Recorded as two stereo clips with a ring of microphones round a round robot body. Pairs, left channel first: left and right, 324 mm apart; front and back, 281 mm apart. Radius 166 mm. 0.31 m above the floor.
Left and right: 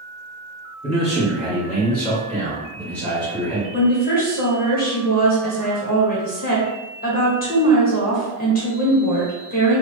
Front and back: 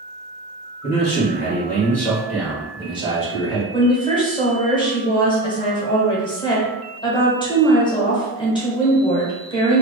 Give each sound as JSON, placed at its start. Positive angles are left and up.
{"t": 0.8, "sound": "a man speaking", "azimuth_deg": 0, "distance_m": 1.6}
{"t": 3.7, "sound": "a woman speaking", "azimuth_deg": 60, "distance_m": 1.2}